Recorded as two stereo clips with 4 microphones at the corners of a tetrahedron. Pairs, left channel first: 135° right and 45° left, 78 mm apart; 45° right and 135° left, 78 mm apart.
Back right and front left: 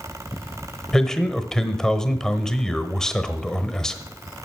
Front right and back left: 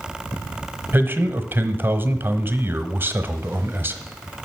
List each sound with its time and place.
0.9 s a man speaking: 150° left, 1.0 m